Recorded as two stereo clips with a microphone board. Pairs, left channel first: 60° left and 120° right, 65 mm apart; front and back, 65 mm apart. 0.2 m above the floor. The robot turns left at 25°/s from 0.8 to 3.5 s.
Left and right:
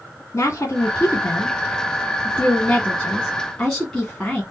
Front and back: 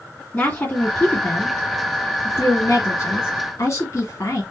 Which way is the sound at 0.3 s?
45° left.